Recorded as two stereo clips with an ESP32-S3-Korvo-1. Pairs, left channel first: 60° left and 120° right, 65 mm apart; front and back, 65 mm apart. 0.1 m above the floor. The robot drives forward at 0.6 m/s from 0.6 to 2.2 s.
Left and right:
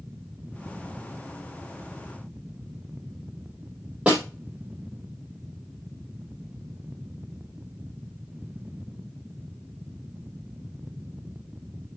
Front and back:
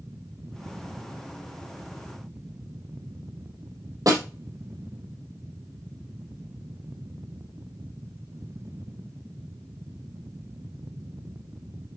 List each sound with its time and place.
4.1 s a snare drum: 170° left, 3.5 m